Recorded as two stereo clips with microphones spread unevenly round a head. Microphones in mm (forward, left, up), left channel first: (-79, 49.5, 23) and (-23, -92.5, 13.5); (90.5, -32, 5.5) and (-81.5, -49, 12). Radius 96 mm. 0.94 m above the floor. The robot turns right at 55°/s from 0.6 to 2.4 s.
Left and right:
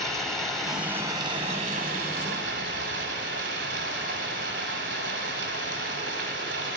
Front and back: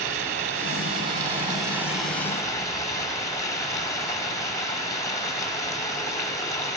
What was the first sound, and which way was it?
Running water, 165° right.